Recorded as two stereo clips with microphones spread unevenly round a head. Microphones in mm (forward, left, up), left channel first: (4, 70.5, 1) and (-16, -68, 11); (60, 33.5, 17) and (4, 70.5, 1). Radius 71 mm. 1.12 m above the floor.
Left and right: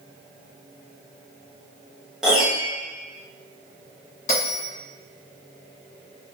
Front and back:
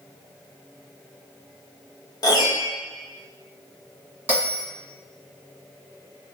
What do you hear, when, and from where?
2.2 s a piano: 10° right, 0.7 m
4.3 s a bell: 80° left, 1.6 m